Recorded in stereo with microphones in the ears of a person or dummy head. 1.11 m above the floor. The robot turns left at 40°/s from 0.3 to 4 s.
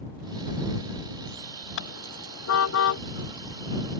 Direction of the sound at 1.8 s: 60° left (ahead or behind).